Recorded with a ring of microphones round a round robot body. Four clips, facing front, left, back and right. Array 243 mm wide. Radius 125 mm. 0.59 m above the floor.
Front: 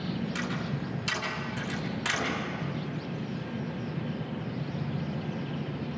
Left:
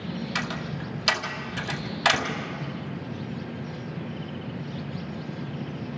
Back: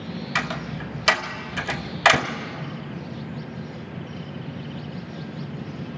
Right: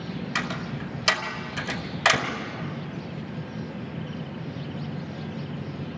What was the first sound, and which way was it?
A door slam, 170° right.